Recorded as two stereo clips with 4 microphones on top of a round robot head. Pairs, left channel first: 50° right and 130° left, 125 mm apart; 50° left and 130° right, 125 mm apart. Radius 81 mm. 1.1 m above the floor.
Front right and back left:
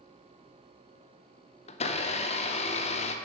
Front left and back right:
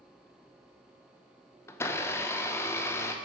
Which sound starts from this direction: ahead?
A blender, at 1.7 s.